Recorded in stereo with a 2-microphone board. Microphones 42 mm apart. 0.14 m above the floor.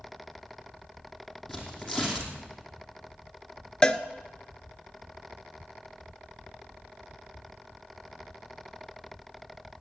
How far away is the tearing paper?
About 3 m.